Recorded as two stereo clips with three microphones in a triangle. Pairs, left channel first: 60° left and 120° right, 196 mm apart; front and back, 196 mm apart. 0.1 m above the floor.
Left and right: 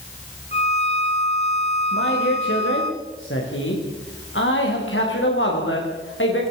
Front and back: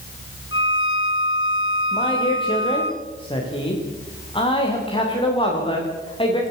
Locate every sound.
0.5 s a violin: straight ahead, 2.5 m
1.9 s a man speaking: 65° left, 9.5 m